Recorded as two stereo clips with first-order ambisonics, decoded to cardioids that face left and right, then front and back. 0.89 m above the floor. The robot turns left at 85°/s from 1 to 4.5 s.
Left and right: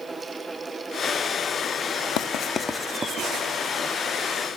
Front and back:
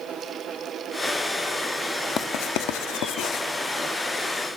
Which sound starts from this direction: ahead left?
Writing, at 2.2 s.